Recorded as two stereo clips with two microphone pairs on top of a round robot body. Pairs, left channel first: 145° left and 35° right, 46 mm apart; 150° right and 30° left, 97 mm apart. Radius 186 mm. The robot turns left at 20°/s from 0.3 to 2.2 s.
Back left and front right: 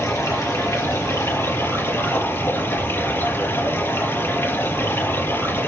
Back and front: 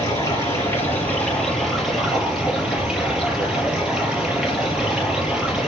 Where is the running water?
150° left, 5 m; by 5.7 s 110° left, 5 m.